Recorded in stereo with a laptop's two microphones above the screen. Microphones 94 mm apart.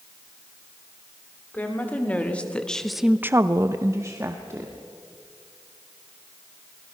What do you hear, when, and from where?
1.5 s a woman speaking: 20° left (ahead or behind), 2.5 m; by 4.8 s 30° right (ahead or behind), 2.5 m